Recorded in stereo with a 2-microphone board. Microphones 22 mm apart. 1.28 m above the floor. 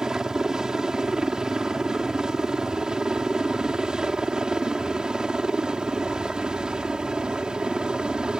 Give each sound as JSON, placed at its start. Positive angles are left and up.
{"t": 0.0, "sound": "a helicopter", "side_deg": -30}